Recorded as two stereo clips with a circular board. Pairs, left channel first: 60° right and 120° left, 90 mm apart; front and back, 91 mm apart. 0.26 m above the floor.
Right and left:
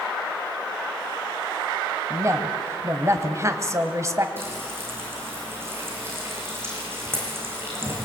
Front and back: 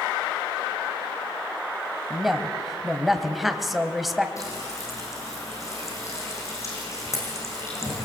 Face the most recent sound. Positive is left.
turn(degrees=55)